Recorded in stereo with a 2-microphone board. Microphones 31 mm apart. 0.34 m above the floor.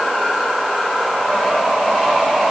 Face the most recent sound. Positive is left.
No sound to turn to.